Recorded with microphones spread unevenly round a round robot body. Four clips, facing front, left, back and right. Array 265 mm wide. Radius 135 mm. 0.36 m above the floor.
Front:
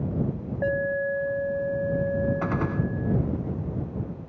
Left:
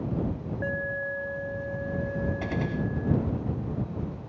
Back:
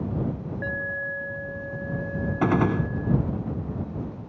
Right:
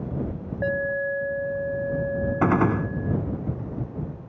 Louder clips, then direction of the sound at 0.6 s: Right 7 dB, front 8 dB; 40° right.